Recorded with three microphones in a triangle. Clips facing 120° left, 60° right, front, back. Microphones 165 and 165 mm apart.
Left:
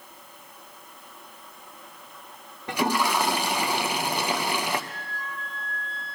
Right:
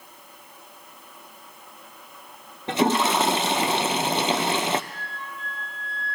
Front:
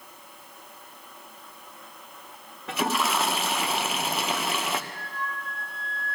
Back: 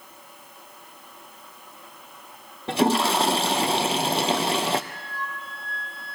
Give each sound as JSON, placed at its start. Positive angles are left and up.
{"t": 2.7, "sound": "a toilet flushing", "azimuth_deg": -125, "distance_m": 0.7}
{"t": 4.9, "sound": "a flute", "azimuth_deg": 75, "distance_m": 2.0}